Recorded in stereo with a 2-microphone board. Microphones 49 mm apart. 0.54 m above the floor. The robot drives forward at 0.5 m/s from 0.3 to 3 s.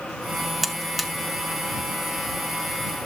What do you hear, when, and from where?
0.6 s a buzzer: centre (ahead or behind), 0.7 m